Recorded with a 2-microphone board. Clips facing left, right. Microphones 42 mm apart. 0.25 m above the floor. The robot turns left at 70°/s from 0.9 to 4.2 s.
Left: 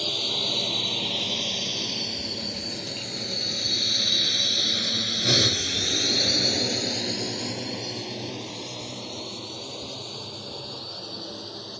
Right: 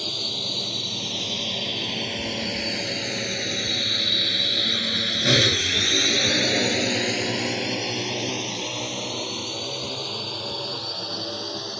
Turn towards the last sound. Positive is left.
turn(degrees=-80)